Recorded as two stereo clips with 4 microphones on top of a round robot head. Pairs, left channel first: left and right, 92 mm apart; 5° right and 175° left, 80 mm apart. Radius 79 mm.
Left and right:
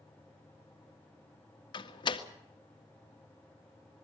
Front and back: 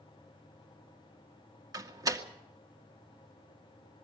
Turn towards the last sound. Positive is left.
turn(degrees=130)